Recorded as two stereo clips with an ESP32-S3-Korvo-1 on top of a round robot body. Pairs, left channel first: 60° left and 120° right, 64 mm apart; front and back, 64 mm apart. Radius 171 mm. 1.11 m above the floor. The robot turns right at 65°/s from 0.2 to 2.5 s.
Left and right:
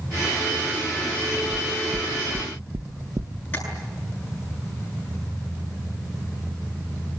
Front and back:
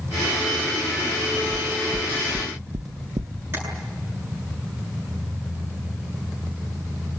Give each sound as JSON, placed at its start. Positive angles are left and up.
{"t": 1.5, "sound": "knocking", "azimuth_deg": 135, "distance_m": 0.8}
{"t": 3.5, "sound": "tapping", "azimuth_deg": 120, "distance_m": 9.0}